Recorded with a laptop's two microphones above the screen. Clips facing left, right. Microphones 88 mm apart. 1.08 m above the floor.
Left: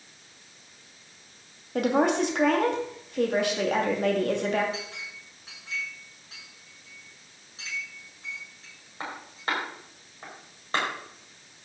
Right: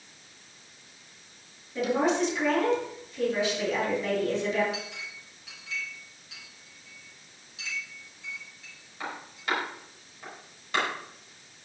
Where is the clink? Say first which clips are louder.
Even; 35° left (ahead or behind), 4.5 m.